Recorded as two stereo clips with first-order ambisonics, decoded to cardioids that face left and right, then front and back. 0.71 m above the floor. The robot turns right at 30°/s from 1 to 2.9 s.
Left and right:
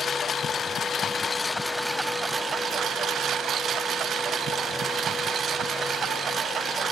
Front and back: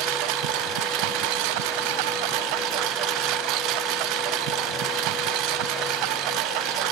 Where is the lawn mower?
160° left; by 6.9 s 155° right.